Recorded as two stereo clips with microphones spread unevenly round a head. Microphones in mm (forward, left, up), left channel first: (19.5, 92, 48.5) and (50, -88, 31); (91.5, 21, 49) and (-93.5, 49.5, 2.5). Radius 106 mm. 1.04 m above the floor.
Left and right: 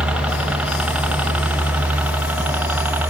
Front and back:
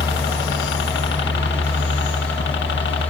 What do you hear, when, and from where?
0.0 s a helicopter: straight ahead; by 3.1 s 5° right